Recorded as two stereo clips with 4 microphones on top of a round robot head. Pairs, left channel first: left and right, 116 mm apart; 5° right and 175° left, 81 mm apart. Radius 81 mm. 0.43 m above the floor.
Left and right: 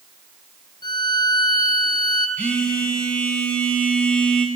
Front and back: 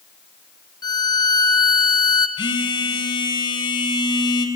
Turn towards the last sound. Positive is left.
turn(degrees=10)